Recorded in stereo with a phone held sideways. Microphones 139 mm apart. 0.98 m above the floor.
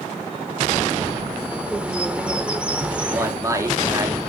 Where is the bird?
10° right (ahead or behind), 1.2 m.